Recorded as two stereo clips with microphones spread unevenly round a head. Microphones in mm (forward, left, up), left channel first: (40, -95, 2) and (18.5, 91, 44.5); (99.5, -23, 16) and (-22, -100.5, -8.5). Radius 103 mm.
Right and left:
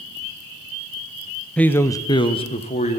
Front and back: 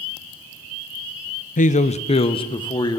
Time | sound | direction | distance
1.6 | a man speaking | straight ahead | 0.9 m